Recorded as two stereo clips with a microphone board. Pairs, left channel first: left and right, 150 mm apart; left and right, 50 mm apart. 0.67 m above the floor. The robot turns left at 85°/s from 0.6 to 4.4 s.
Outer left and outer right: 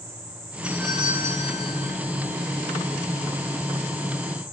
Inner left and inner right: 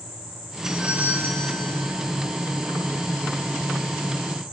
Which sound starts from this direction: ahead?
A doorbell, at 0.6 s.